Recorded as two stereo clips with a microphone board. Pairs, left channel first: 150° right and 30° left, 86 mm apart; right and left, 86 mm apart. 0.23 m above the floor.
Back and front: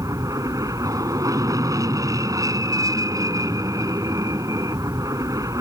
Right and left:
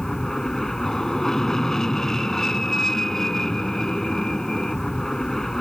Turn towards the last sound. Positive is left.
turn(degrees=-5)